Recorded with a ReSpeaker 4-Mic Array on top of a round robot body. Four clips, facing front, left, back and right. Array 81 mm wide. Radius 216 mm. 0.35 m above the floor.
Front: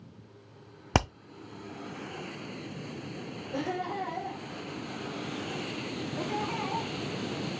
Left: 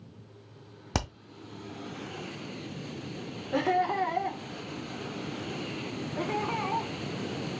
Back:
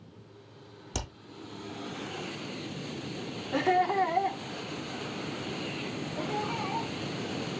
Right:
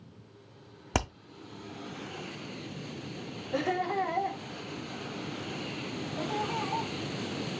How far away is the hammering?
About 0.6 m.